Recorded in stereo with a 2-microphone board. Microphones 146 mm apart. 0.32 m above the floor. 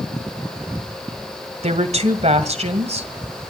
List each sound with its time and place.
1.6 s a woman speaking: 50° right (ahead or behind), 2 m